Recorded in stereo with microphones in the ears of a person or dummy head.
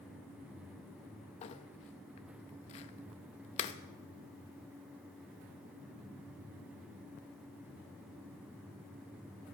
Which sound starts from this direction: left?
Crumpling, at 1.4 s.